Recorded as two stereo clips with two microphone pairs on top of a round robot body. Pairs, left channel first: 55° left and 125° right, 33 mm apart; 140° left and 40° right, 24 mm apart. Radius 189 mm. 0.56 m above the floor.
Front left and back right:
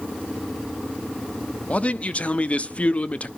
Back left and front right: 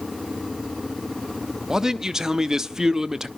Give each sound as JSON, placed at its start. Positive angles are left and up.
{"t": 1.7, "sound": "a man speaking", "azimuth_deg": 20, "distance_m": 0.9}